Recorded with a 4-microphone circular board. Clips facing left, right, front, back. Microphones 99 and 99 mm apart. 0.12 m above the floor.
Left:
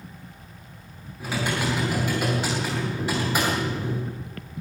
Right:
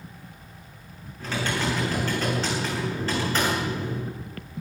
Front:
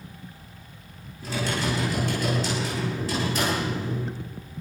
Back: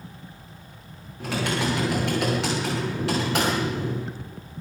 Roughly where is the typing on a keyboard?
Behind.